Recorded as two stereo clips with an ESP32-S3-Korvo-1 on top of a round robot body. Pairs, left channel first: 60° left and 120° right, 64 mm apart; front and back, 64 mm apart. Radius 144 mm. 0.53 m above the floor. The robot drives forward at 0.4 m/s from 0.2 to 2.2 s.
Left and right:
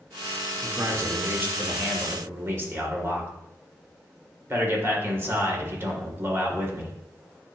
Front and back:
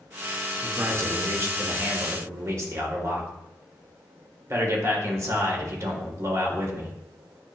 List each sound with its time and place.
0.6 s a man speaking: 155° right, 1.6 m; by 6.9 s 160° right, 2 m